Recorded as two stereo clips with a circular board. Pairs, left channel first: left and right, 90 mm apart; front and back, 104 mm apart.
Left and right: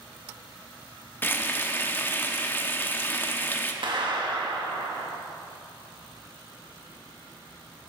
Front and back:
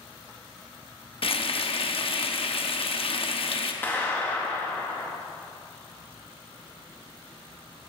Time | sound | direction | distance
1.2 | frying | 25° left | 0.7 m
3.8 | a clap | 70° right | 1.2 m